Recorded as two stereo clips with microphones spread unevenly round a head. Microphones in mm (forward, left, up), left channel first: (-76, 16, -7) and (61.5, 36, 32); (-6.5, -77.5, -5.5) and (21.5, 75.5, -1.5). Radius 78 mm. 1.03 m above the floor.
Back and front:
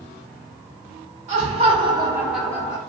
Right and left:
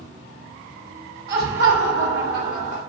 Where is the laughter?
50° left, 1.3 m; by 2.8 s 130° left, 0.8 m.